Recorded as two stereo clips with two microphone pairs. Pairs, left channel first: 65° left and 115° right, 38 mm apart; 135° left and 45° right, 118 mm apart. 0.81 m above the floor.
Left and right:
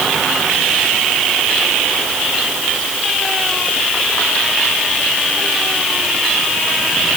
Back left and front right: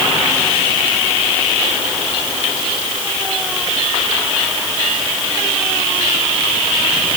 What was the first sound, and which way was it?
Only background noise.